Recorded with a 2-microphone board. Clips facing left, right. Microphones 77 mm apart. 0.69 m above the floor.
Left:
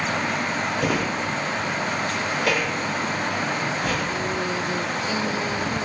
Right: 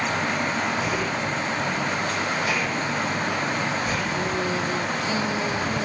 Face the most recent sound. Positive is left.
turn(degrees=85)